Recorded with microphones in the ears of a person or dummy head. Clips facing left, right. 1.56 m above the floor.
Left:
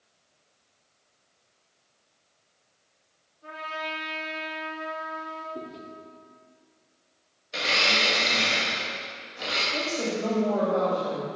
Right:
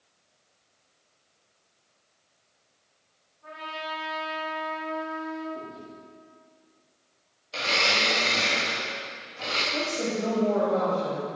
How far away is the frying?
I don't hear frying.